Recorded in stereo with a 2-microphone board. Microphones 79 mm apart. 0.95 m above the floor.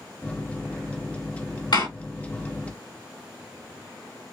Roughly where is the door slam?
Left.